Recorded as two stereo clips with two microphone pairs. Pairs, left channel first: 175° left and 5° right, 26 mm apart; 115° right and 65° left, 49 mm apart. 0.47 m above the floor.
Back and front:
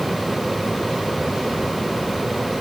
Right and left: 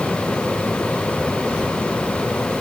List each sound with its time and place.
Only background noise.